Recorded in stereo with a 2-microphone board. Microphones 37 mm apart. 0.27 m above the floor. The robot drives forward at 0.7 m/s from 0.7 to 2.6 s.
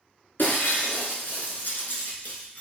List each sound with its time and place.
0.4 s breaking glass: 70° left (ahead or behind), 1.3 m; by 2.6 s 50° left (ahead or behind), 1.6 m